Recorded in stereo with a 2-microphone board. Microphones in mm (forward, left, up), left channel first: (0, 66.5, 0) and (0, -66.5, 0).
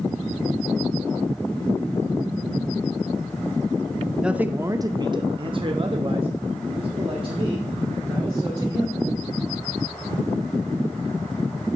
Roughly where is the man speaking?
Centre.